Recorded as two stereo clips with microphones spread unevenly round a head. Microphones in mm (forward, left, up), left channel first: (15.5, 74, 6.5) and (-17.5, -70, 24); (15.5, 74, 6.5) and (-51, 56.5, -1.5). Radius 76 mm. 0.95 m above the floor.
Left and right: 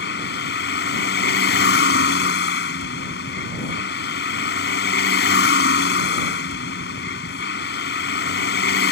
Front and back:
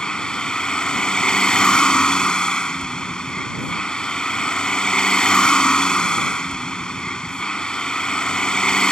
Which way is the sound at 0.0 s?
90° left.